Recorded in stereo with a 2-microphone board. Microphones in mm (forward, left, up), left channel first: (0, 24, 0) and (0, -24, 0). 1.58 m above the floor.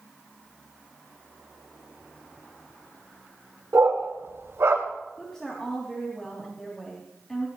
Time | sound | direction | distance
3.7 | a dog barking | 65° right (ahead or behind) | 2 m
5.2 | a woman speaking | 15° left (ahead or behind) | 2.5 m